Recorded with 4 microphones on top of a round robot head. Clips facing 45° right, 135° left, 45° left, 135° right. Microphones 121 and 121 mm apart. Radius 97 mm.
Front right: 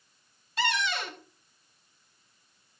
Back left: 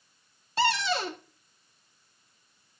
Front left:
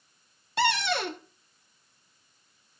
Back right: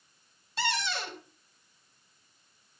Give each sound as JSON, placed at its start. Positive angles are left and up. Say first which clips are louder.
{"t": 0.6, "sound": "a cupboard door", "louder": "back left 4 dB, front left 7 dB", "azimuth_deg": 75, "distance_m": 1.2}